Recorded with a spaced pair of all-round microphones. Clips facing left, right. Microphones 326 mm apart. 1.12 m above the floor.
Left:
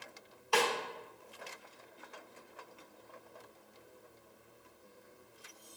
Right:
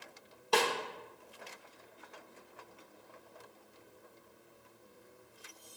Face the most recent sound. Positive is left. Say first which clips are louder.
# right 1 dB
turn(degrees=-50)  # may be behind; listen again after turning